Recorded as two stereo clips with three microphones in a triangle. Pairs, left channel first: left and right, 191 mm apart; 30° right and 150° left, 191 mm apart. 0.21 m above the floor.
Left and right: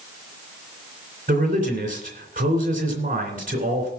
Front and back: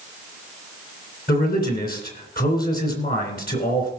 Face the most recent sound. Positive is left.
turn(degrees=-55)